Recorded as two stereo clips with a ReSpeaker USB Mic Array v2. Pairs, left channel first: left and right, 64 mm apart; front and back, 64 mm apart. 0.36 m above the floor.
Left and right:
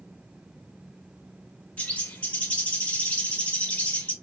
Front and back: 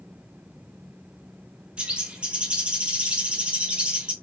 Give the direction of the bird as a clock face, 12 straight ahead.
8 o'clock.